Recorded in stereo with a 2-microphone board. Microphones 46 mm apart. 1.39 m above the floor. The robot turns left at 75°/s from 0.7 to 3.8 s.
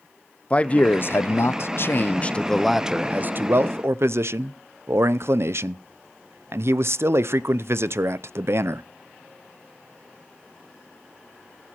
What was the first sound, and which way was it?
A man speaking, 150° left.